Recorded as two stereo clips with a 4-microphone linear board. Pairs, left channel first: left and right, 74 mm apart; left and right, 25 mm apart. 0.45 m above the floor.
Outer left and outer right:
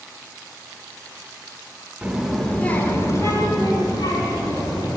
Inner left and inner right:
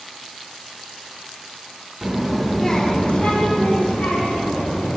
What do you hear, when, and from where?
2.0 s a child speaking: 15° right (ahead or behind), 0.7 m; by 5.0 s 75° left (ahead or behind), 1.7 m